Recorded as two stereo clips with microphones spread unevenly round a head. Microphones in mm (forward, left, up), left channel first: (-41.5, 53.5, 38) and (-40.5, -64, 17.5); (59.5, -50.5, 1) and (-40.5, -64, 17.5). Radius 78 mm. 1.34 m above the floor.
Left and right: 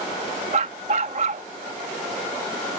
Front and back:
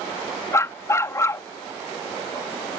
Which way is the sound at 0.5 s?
50° right.